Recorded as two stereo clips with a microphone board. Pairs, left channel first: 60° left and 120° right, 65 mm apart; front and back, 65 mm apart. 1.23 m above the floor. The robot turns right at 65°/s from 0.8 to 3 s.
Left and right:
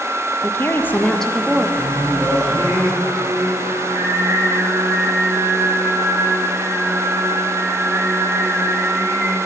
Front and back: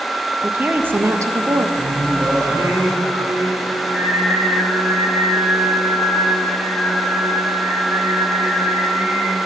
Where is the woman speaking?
115° left, 1.1 m; by 1.7 s 170° left, 1.1 m.